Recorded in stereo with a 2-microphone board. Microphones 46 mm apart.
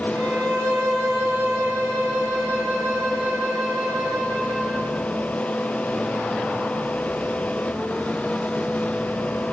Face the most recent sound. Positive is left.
turn(degrees=-85)